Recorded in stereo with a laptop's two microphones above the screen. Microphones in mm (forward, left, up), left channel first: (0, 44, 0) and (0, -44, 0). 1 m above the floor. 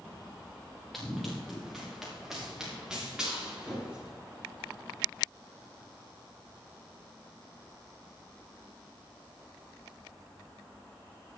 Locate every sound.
0.9 s running footsteps: centre (ahead or behind), 5.5 m; by 4.1 s 10° right (ahead or behind), 8.5 m